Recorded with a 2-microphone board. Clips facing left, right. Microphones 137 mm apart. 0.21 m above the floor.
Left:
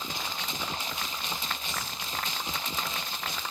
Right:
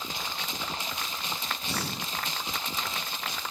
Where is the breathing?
85° right.